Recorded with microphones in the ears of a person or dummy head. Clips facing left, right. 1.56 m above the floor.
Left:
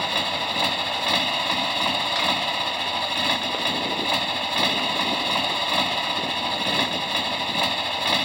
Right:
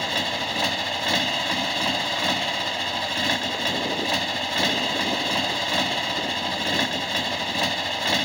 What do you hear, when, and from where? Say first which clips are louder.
0.0 s a motorcycle: even; 10° right (ahead or behind)